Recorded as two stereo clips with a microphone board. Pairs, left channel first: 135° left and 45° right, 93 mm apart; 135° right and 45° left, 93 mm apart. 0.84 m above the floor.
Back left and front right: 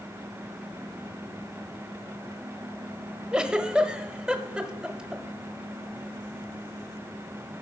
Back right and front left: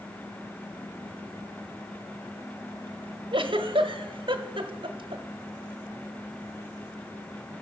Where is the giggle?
35° left, 0.9 m.